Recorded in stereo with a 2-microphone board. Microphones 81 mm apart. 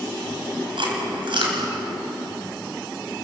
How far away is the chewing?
About 4 m.